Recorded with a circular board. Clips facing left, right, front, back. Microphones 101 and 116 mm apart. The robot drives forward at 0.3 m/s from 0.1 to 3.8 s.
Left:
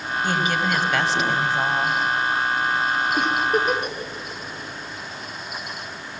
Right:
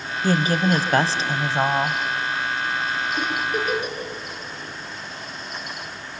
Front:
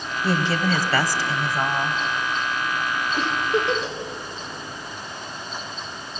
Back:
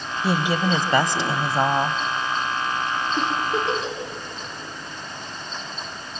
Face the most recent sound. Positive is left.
turn(degrees=115)